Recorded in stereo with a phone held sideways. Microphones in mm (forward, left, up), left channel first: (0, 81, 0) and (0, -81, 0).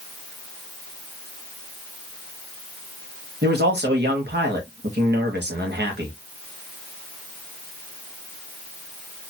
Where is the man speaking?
80° right, 1.4 m.